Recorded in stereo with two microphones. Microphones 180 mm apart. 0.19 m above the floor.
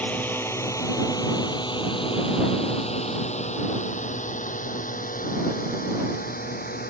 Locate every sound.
0.0 s a drone: 10° left (ahead or behind); by 6.9 s 55° left (ahead or behind)